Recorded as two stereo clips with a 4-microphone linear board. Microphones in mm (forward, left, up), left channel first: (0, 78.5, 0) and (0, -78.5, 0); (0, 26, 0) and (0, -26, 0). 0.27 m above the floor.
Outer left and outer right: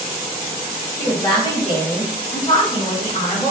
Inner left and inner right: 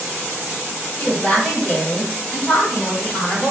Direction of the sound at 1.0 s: 30° left (ahead or behind).